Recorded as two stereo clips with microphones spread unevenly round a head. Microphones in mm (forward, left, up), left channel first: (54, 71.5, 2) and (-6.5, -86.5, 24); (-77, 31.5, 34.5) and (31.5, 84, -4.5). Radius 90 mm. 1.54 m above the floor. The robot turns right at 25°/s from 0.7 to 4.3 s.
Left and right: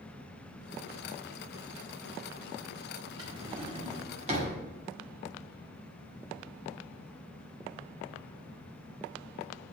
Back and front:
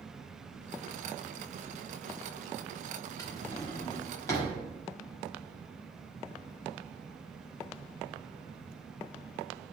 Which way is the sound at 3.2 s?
155° right.